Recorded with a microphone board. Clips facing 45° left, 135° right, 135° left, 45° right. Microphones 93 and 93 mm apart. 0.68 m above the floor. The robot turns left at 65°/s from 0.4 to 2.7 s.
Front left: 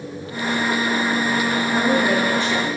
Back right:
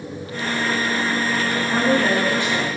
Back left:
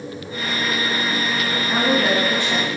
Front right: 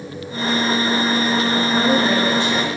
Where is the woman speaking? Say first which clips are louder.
Back right 1 dB, even; 155° right, 3 m; by 2.7 s 145° left, 3 m.